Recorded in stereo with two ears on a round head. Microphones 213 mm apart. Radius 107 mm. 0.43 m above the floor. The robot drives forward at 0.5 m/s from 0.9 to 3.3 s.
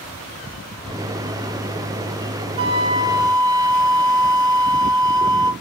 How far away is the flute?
About 0.7 m.